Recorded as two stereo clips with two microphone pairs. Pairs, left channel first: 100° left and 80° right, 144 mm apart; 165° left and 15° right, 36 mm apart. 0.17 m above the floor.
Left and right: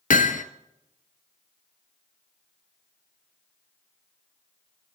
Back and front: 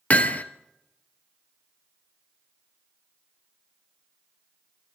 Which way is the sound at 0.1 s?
115° left.